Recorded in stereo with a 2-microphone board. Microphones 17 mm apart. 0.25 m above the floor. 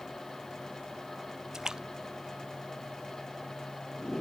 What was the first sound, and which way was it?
A splash, 40° right (ahead or behind).